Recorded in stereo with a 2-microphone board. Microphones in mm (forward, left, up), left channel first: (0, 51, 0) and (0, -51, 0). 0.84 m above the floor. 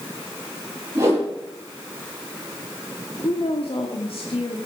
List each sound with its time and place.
0.9 s a whoosh: 25° right (ahead or behind), 8 m
3.2 s a woman speaking: 65° left (ahead or behind), 1.9 m